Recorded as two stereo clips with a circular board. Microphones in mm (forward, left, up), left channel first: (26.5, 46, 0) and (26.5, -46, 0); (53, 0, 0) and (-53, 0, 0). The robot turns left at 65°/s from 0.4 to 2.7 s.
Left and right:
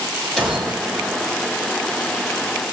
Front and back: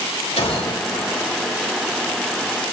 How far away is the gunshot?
About 6 m.